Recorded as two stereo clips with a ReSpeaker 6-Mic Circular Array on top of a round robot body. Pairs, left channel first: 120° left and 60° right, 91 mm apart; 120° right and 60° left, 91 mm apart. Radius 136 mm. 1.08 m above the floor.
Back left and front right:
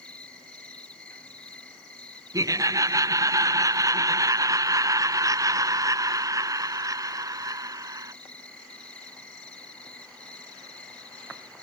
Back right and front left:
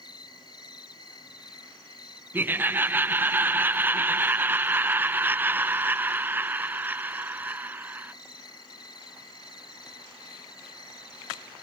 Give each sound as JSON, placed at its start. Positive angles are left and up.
{"t": 0.0, "sound": "an insect", "azimuth_deg": -160}
{"t": 2.3, "sound": "laughter", "azimuth_deg": -10}